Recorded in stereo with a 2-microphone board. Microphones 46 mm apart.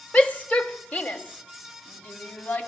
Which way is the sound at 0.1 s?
30° left (ahead or behind).